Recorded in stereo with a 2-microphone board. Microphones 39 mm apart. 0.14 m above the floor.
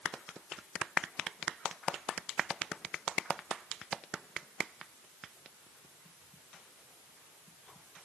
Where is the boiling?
I don't hear boiling.